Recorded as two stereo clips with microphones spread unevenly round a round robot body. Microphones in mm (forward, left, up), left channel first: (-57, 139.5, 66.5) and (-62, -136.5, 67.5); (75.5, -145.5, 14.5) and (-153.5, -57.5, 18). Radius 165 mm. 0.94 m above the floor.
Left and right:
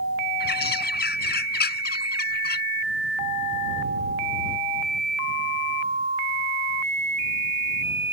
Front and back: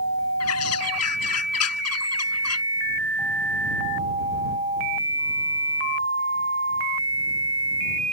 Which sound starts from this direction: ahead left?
A bird, at 0.4 s.